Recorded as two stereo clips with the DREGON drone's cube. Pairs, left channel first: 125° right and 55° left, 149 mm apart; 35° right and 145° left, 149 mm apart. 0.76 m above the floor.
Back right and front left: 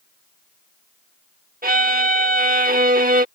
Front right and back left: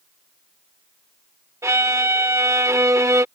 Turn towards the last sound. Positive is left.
turn(degrees=75)